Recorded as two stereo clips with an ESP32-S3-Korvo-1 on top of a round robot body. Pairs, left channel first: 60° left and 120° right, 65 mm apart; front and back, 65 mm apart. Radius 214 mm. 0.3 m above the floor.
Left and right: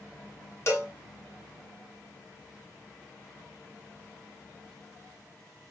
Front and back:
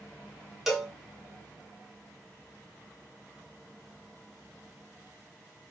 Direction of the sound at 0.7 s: 100° left.